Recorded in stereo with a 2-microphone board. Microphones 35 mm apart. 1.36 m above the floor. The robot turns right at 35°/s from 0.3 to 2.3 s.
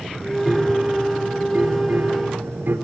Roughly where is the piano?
Behind.